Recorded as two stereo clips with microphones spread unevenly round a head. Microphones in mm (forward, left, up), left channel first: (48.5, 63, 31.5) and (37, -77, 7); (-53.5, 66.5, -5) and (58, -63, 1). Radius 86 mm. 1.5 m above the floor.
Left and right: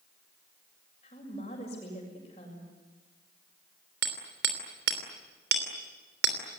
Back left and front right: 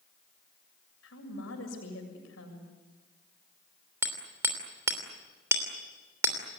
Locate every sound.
1.0 s a woman speaking: 140° left, 7 m
4.0 s hammering: 125° right, 3 m